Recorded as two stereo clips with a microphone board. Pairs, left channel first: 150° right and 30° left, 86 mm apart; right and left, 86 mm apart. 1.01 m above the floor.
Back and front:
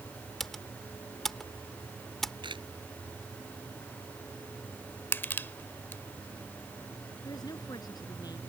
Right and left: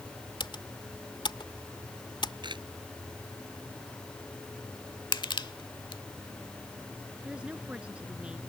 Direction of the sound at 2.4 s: 60° left.